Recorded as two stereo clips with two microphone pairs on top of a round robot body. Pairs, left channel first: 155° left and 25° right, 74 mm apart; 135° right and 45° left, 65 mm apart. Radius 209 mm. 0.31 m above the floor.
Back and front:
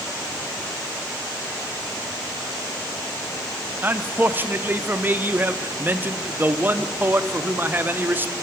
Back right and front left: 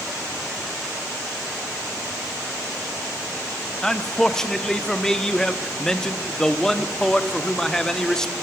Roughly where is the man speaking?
Ahead right.